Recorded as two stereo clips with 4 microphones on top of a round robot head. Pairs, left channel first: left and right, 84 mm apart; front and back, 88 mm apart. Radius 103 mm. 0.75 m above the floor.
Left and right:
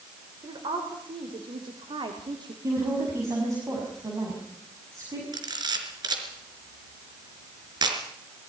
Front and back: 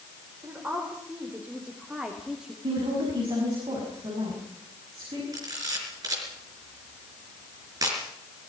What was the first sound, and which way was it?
A woman speaking, 105° right.